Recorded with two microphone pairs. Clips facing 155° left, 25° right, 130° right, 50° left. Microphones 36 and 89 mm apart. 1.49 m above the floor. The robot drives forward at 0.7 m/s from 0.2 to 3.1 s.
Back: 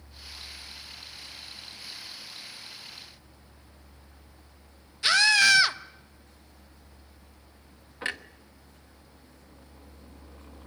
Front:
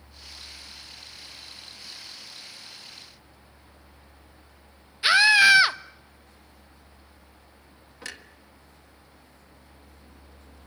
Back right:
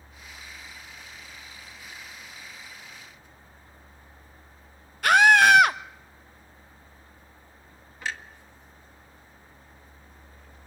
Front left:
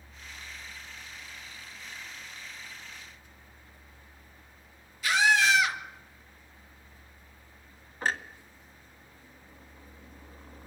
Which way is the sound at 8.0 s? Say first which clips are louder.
Back 7 dB, front left 4 dB; 95° left.